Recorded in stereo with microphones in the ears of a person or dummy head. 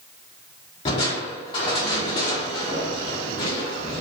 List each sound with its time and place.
0.8 s crushing: 20° left (ahead or behind), 0.6 m